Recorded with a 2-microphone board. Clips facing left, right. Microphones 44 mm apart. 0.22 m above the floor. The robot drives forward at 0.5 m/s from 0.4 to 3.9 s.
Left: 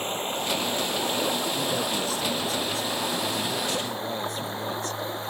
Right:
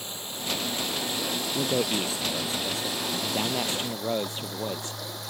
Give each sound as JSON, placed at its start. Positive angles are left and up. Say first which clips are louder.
{"t": 0.0, "sound": "running water", "louder": "left 8 dB", "side_deg": 45}
{"t": 1.6, "sound": "a man speaking", "louder": "right 1 dB", "side_deg": -30}